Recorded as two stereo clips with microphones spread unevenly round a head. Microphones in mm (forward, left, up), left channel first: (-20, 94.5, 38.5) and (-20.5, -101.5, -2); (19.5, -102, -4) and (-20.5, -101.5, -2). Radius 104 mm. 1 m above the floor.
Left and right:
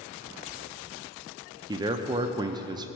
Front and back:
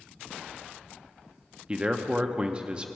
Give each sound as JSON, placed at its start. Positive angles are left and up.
{"t": 1.7, "sound": "a man speaking", "azimuth_deg": -125, "distance_m": 0.6}